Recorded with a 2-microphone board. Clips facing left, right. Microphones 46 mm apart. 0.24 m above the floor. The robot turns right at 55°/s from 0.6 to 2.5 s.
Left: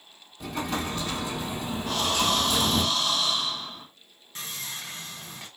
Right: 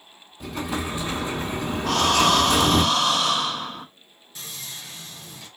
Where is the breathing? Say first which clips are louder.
Right 7 dB; 110° right, 0.6 m; by 3.9 s 75° right, 0.6 m.